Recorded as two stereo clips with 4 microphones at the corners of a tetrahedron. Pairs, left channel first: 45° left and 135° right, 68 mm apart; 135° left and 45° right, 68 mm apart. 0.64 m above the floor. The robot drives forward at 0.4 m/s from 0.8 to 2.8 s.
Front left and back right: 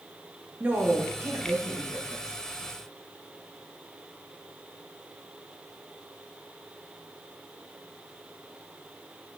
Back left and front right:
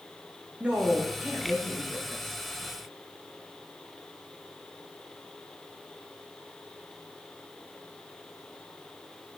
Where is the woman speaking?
100° right, 0.7 m; by 2.4 s 150° right, 1.0 m.